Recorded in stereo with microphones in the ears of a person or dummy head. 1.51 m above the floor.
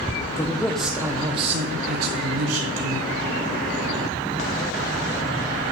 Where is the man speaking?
20° left (ahead or behind), 0.8 m; by 3.1 s 75° right (ahead or behind), 1.3 m.